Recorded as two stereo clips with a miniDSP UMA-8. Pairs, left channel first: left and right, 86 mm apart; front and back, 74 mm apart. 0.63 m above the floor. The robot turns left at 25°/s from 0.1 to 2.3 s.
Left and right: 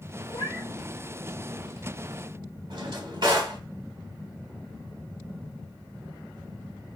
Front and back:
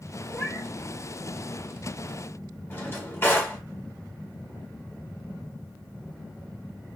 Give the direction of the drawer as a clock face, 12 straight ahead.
2 o'clock.